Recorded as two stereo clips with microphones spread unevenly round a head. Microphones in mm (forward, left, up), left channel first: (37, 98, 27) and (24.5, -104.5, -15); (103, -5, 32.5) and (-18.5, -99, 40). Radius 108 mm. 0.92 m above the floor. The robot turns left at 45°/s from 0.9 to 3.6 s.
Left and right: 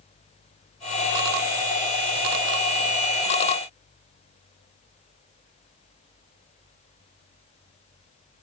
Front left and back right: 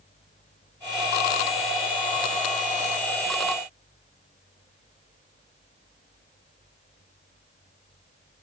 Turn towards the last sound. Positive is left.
No sound to turn to.